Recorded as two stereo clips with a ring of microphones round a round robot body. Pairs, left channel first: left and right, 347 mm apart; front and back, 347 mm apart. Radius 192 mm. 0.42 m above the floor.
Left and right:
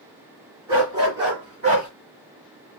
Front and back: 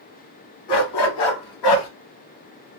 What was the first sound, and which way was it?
A dog barking, 5° right.